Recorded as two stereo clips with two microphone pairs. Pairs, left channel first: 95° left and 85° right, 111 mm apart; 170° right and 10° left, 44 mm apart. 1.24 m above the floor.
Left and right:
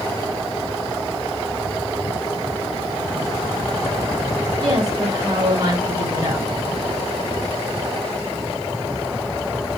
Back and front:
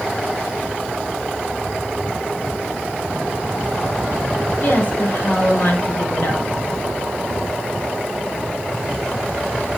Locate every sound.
4.6 s a woman speaking: 135° right, 6.5 m